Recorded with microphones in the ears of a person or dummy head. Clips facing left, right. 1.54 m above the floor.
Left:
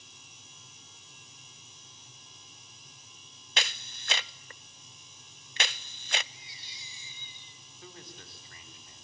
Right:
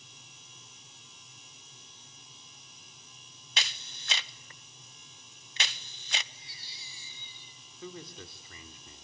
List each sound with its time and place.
3.6 s a camera shutter: 40° left (ahead or behind), 0.5 m
6.3 s a baby crying: 20° left (ahead or behind), 6.5 m
7.8 s a man speaking: 75° right (ahead or behind), 4 m